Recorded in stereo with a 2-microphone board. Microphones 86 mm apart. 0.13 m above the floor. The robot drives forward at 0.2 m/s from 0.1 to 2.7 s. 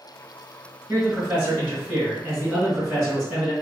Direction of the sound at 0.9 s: 20° right (ahead or behind).